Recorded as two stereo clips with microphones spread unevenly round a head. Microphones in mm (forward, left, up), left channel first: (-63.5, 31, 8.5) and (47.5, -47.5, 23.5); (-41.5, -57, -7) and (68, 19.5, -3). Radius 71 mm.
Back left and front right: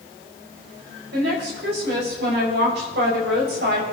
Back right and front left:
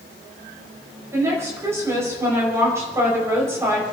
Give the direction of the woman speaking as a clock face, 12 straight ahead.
1 o'clock.